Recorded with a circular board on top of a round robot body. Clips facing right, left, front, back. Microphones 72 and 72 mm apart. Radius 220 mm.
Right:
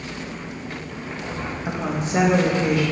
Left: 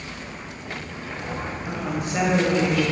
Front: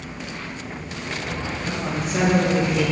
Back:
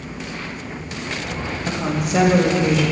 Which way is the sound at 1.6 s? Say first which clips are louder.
Right 3 dB, back 5 dB; 155° right.